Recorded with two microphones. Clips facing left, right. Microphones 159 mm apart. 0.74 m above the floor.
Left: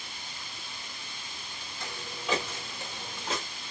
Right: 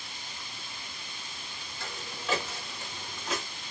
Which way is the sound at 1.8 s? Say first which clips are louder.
Left 1 dB; 15° left (ahead or behind).